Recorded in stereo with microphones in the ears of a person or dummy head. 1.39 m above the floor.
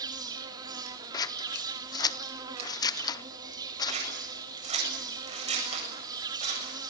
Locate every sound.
0.0 s an insect: 20° right (ahead or behind), 2 m
1.1 s scissors: 20° left (ahead or behind), 0.7 m
3.9 s scissors: 35° right (ahead or behind), 8 m